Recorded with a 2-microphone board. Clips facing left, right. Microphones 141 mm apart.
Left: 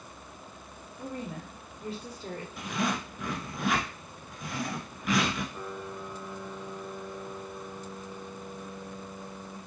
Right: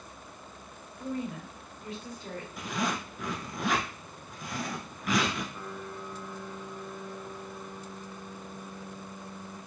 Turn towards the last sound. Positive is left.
turn(degrees=15)  # may be behind; listen again after turning